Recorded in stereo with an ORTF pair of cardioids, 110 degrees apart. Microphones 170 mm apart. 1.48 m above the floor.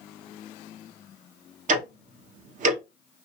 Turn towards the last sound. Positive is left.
turn(degrees=-50)